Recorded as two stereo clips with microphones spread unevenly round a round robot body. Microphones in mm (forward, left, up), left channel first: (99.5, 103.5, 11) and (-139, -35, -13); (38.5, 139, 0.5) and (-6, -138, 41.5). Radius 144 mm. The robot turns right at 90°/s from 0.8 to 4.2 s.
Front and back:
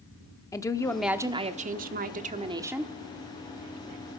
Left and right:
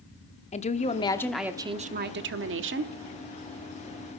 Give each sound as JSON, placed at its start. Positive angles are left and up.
{"t": 0.5, "sound": "a woman speaking", "azimuth_deg": 110, "distance_m": 0.9}